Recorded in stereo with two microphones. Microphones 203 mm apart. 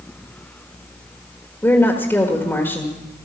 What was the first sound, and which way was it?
A woman speaking, 10° left (ahead or behind).